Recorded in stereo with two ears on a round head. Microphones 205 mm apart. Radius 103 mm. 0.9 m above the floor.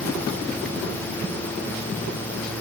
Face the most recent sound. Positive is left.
No sound to turn to.